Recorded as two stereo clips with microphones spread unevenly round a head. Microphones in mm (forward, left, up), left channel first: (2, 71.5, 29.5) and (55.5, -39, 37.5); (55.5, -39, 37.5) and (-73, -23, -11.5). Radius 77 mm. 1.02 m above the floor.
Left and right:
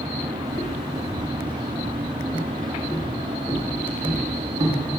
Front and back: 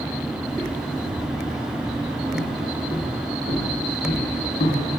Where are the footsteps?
55° left, 2.5 m; by 4.9 s 15° right, 1.8 m.